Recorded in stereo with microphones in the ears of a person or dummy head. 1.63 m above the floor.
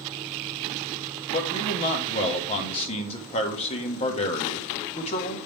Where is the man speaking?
30° left (ahead or behind), 1.5 m.